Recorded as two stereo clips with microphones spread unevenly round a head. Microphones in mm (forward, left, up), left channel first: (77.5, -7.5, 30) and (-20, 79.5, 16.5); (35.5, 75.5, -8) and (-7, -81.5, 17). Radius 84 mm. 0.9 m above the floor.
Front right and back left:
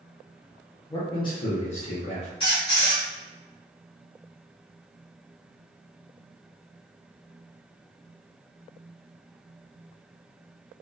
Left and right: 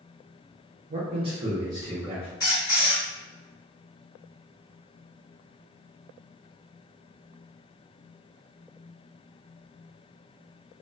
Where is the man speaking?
100° right, 0.7 m; by 2.3 s 25° right, 1.0 m.